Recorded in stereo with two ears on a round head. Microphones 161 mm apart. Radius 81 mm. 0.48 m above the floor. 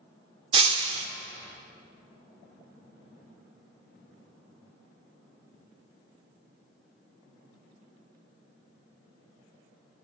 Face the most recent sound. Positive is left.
turn(degrees=-30)  # may be behind; listen again after turning